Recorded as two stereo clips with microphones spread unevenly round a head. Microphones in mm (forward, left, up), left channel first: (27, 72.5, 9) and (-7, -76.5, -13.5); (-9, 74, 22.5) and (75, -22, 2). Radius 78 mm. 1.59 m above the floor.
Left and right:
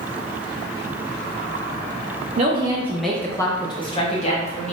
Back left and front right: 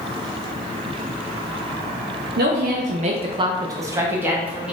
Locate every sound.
2.4 s a woman speaking: 50° right, 0.5 m; by 4.7 s 35° left, 1.1 m